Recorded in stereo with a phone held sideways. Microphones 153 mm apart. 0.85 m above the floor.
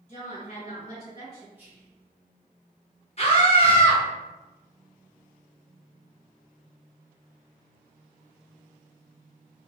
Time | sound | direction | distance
0.1 | a woman speaking | 50° left (ahead or behind) | 1.4 m
1.6 | whispering | 10° right (ahead or behind) | 0.7 m
3.2 | a scream | 45° left (ahead or behind) | 1.1 m